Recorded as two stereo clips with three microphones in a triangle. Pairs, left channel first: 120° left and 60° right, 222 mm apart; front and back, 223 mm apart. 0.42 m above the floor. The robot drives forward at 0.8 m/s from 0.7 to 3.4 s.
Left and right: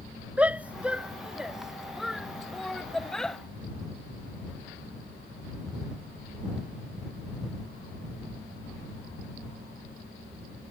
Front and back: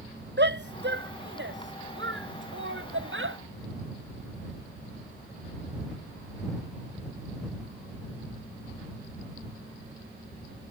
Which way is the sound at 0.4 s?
145° right.